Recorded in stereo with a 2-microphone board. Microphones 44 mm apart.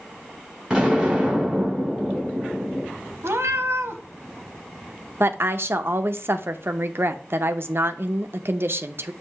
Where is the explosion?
15° right (ahead or behind), 3.5 m.